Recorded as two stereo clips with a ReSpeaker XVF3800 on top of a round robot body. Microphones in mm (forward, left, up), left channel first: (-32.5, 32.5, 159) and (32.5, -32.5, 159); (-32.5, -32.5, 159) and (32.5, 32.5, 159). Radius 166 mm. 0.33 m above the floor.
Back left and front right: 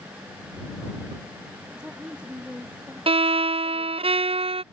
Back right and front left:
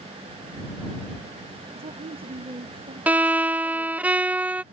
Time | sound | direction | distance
1.7 | a woman speaking | 35° left | ?
3.1 | a violin | 30° right | ?